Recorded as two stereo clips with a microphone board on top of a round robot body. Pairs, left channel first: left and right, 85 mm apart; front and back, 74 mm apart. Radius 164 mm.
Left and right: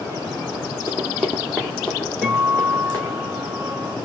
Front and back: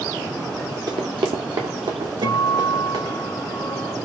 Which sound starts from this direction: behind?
A guitar, at 2.2 s.